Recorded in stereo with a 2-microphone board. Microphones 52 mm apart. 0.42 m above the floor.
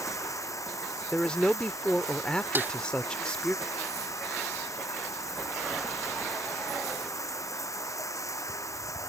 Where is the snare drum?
40° right (ahead or behind).